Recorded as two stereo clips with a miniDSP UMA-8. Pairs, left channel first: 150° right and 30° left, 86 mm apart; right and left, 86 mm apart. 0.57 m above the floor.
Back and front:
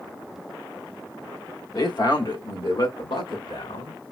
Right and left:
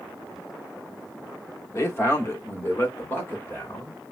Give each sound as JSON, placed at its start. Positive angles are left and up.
{"t": 1.7, "sound": "a man speaking", "azimuth_deg": -135, "distance_m": 1.0}